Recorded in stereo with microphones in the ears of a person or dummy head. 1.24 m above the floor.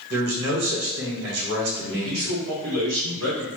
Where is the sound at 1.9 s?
65° right (ahead or behind), 1.4 m.